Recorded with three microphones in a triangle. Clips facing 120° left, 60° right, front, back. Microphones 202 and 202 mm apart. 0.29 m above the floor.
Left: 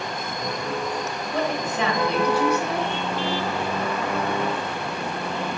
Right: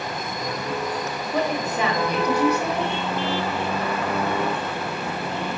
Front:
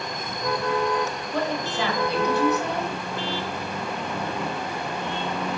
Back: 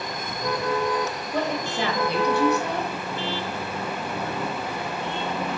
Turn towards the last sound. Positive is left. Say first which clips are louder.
# right 1 dB, even
turn(degrees=-130)